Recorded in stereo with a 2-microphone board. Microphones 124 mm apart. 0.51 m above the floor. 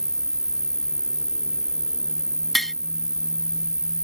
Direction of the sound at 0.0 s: 5° right (ahead or behind).